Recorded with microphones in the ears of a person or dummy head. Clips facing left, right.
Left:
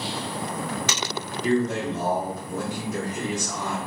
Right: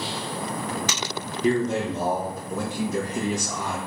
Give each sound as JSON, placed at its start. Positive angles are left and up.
{"t": 1.4, "sound": "a man speaking", "side_deg": -85, "distance_m": 1.2}